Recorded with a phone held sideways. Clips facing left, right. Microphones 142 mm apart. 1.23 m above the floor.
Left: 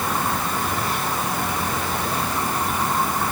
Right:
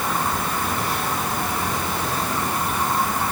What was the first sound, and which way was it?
Only background noise.